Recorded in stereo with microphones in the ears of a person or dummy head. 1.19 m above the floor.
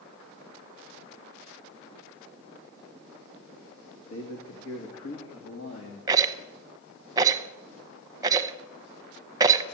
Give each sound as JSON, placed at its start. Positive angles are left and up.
{"t": 4.1, "sound": "a man speaking", "side_deg": 85, "distance_m": 2.0}
{"t": 6.1, "sound": "a rattle", "side_deg": -20, "distance_m": 0.7}